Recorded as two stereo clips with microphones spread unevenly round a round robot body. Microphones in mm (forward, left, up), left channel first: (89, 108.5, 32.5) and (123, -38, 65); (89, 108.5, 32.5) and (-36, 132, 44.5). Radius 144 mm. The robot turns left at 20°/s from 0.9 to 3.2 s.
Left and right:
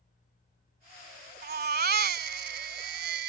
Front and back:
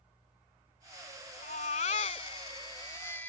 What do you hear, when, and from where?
1.4 s a baby crying: 60° right; by 3.3 s 95° right